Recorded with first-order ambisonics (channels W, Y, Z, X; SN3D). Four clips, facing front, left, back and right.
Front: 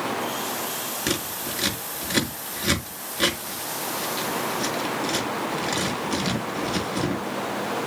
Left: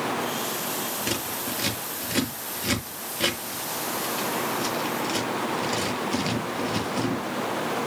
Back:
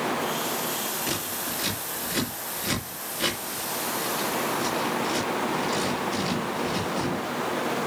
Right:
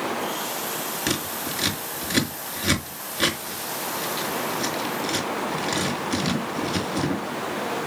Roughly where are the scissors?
Ahead right.